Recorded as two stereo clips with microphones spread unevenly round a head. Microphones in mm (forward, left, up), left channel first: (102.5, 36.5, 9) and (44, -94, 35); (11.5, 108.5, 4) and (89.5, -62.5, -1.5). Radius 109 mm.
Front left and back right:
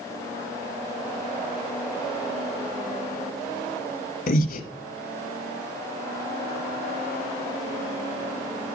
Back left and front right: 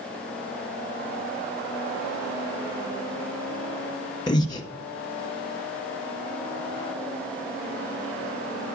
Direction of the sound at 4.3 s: 45° left.